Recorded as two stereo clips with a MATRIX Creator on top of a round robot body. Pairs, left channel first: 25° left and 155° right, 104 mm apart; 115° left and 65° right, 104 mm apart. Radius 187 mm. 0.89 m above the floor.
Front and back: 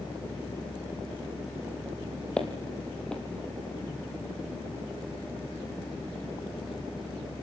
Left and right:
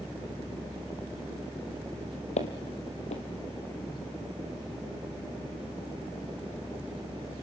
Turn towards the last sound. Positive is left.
turn(degrees=105)